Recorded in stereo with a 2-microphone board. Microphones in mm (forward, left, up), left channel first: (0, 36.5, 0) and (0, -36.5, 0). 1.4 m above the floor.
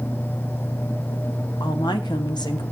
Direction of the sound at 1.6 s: 85° left.